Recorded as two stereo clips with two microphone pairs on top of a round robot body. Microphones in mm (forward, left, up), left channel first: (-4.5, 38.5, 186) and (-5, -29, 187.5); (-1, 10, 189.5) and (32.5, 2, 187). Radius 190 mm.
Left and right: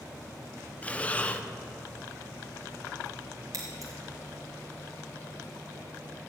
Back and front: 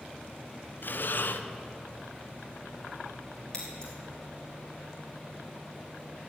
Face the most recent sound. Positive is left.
turn(degrees=-125)